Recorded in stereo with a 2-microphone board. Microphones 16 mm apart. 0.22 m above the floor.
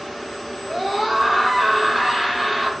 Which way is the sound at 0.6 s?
10° left (ahead or behind).